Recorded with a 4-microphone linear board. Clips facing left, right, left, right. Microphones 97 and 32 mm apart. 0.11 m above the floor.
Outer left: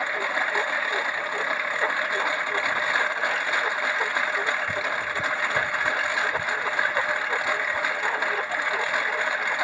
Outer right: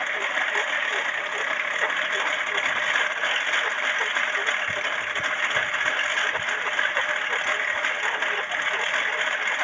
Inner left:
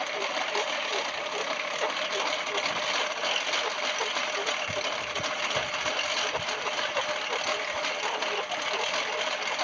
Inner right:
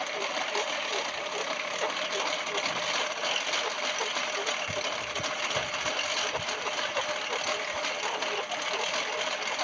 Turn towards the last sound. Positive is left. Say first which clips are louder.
# outer left 1 dB, inner left 1 dB
turn(degrees=10)  # may be behind; listen again after turning